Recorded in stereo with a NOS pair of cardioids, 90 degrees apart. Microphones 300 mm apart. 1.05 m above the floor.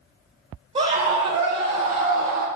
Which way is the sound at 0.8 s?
20° right.